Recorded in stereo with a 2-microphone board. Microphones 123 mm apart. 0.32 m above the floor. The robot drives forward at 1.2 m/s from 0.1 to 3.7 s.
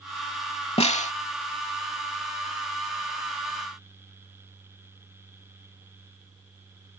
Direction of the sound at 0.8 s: 55° left (ahead or behind).